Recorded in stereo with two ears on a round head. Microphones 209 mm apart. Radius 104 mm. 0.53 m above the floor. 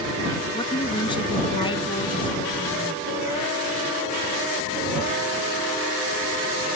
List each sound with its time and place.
0.5 s a woman speaking: 20° left (ahead or behind)